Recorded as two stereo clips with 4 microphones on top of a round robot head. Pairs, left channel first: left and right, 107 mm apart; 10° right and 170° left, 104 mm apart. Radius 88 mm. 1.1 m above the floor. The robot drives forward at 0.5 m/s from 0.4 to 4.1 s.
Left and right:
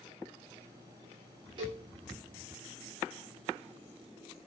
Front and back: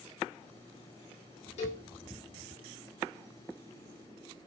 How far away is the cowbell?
About 1.2 m.